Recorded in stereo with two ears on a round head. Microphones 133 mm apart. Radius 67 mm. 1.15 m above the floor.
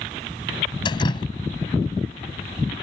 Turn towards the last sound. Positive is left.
turn(degrees=30)  # may be behind; listen again after turning